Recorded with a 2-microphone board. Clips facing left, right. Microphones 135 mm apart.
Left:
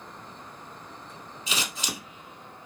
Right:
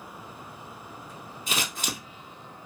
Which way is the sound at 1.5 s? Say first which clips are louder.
Right 1 dB; 50° right (ahead or behind).